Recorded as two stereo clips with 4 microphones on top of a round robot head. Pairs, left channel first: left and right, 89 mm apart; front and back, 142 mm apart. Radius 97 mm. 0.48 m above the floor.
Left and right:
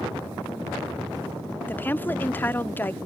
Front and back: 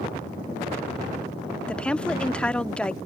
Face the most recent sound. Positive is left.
turn(degrees=70)